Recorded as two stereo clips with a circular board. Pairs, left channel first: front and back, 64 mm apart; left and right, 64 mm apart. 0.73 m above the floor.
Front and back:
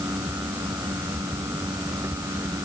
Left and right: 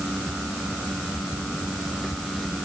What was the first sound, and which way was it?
Only background noise.